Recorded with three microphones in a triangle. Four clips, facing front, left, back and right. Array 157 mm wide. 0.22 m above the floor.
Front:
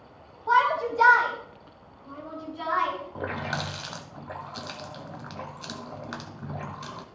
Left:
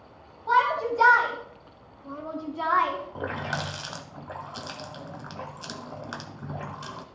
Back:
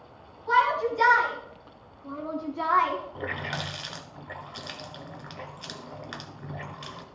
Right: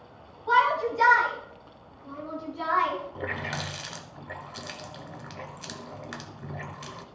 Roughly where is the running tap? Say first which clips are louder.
Left 2 dB, front 2 dB; ahead left.